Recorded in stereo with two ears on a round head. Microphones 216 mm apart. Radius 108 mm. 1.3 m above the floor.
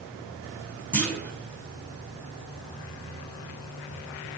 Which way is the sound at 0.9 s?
10° left (ahead or behind).